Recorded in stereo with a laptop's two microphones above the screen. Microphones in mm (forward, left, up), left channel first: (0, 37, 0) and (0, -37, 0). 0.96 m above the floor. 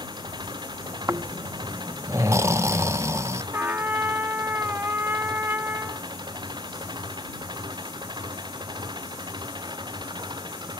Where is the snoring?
40° right (ahead or behind).